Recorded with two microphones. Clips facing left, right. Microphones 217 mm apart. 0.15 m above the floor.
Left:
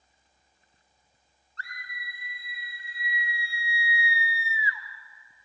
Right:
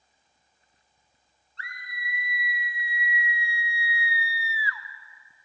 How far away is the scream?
About 3.5 m.